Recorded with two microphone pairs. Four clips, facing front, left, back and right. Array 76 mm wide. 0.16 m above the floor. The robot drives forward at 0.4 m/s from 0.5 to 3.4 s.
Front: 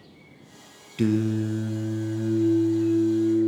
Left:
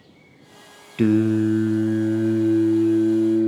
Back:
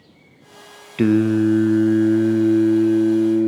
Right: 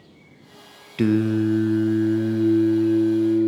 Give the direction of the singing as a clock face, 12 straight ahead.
6 o'clock.